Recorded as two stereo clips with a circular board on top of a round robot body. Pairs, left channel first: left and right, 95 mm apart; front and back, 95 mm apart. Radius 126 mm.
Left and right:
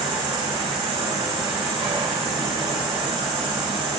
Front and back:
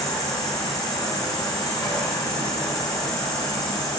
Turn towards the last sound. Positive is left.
turn(degrees=-55)